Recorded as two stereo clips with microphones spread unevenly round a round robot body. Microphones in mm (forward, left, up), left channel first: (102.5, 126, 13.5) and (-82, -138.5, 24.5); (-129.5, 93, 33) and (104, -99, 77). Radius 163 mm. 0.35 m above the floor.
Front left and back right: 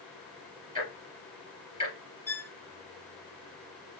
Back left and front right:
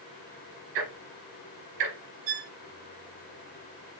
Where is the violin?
20° right, 0.8 m.